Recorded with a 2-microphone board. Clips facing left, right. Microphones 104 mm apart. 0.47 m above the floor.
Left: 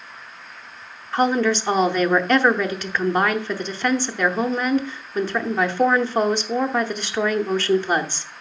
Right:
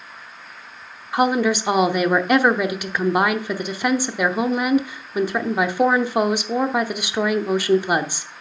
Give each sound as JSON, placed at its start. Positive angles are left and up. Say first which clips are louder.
{"t": 1.1, "sound": "a woman speaking", "louder": "right 1 dB", "side_deg": -10, "distance_m": 0.7}